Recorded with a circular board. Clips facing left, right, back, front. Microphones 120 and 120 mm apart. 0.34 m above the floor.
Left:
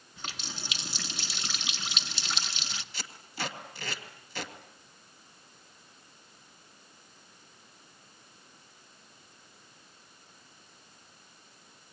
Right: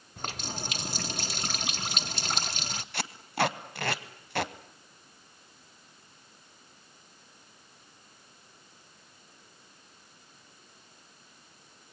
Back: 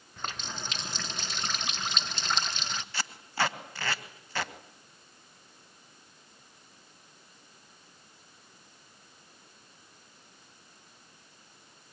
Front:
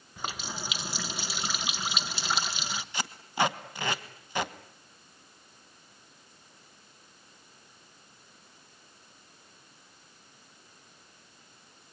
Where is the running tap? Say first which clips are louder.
Right 6 dB, front 1 dB; 80° right, 0.9 m.